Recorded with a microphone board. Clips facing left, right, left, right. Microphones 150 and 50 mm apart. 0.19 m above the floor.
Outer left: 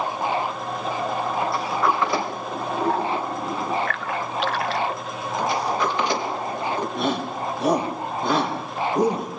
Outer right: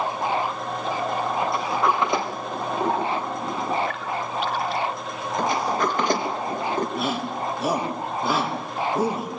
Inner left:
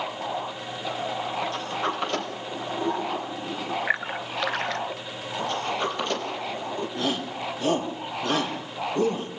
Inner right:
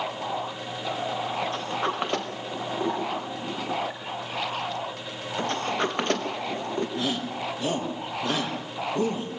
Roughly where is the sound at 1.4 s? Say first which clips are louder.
Even, even; right.